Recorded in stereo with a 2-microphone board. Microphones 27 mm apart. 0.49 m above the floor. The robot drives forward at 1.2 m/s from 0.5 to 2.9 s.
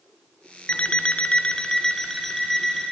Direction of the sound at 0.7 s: 45° left (ahead or behind).